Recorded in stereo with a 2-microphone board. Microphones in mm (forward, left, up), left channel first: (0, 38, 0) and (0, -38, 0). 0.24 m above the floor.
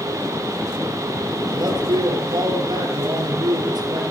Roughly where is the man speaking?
Right.